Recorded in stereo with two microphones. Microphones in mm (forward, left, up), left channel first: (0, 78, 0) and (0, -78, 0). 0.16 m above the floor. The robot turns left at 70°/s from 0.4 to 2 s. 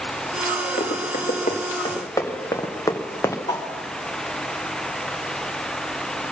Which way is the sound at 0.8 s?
75° left (ahead or behind).